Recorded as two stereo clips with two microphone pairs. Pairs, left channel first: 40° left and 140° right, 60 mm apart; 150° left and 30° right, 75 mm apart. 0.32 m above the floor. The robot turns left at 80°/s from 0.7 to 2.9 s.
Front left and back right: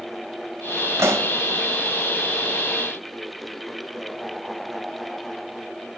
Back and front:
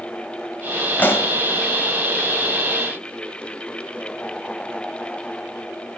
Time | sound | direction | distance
1.0 | a pop | 150° right | 1.4 m